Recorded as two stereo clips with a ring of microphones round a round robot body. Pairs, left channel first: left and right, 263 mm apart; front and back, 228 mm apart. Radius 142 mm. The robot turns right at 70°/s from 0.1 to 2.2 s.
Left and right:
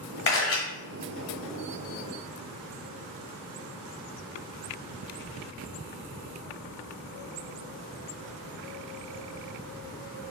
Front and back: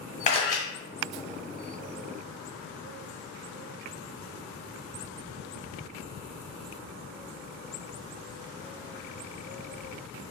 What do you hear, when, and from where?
0.3 s a camera shutter: 50° left, 1.3 m; by 0.6 s 75° left, 1.3 m